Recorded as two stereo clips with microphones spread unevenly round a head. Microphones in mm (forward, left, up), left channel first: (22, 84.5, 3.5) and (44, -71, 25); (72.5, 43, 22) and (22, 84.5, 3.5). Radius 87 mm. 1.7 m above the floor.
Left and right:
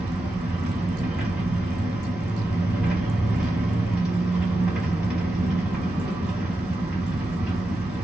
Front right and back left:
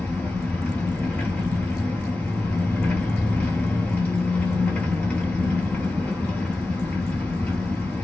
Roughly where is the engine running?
Ahead.